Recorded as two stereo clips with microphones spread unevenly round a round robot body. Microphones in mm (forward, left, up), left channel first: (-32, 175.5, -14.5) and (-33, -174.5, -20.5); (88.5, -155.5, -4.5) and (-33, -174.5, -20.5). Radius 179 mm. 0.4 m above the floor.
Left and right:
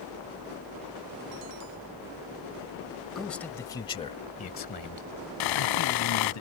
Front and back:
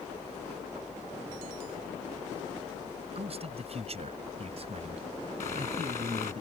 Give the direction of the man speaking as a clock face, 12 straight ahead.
6 o'clock.